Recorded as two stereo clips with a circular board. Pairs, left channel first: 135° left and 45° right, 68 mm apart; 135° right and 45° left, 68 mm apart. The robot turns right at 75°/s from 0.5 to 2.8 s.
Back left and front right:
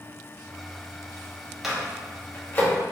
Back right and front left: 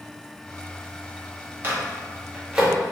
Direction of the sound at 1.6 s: 35° left.